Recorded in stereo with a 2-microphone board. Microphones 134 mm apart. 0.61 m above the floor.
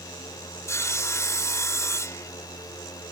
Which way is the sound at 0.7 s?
25° left (ahead or behind).